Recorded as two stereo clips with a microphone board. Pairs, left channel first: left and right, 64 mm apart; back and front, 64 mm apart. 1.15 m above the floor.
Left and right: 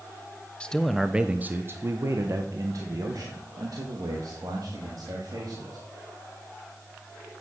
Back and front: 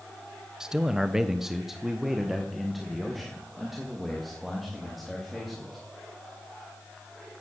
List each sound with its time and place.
0.6 s a man speaking: 55° left, 0.7 m; by 5.8 s 90° right, 3 m